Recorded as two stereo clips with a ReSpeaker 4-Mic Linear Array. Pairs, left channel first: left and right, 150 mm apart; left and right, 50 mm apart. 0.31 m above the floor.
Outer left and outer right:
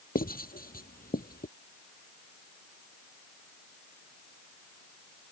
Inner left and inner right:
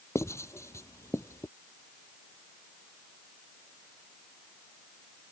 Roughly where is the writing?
Left.